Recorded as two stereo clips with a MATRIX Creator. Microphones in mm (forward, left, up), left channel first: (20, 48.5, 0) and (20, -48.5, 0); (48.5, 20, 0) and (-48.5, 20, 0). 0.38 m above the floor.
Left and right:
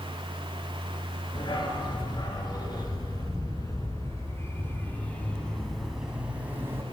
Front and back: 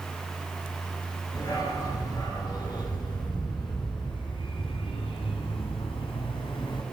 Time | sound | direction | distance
1.4 | a dog barking | 50° left | 3 m